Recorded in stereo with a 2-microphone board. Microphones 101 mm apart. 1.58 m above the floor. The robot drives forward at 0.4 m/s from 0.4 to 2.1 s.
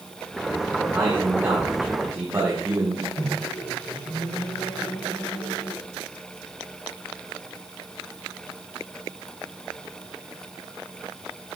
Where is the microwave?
80° left, 4 m.